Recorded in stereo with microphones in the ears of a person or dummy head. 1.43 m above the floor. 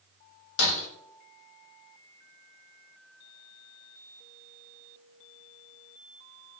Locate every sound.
0.6 s breaking glass: 80° left, 3 m